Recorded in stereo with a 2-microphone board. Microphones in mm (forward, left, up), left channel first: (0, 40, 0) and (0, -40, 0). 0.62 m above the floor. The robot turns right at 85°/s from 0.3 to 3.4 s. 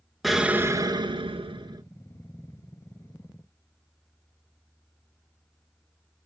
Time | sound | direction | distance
0.2 | an explosion | straight behind | 0.5 m